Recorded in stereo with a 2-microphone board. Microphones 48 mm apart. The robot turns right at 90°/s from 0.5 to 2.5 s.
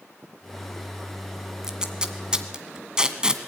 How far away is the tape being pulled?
About 1.7 m.